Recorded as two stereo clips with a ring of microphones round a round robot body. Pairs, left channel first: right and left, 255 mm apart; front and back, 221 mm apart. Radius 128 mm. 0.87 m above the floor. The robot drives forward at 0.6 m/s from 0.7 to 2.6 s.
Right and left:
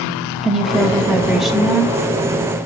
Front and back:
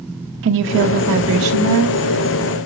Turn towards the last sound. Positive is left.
turn(degrees=180)